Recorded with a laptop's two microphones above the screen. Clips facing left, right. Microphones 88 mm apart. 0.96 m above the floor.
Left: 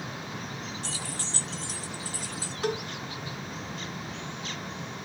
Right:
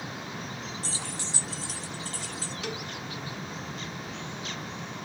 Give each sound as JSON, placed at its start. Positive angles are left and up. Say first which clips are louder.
{"t": 0.8, "sound": "keys jangling", "louder": "even", "side_deg": -35, "distance_m": 0.6}
{"t": 2.6, "sound": "a cowbell", "louder": "left 9 dB", "side_deg": 40, "distance_m": 0.7}